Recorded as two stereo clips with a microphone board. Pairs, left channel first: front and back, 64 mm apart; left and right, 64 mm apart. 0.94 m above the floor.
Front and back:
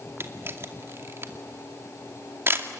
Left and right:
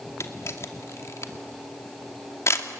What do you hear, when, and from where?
0.2 s a camera shutter: 130° left, 2 m